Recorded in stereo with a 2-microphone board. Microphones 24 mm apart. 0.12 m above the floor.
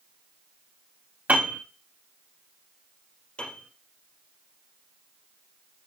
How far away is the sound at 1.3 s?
About 4 m.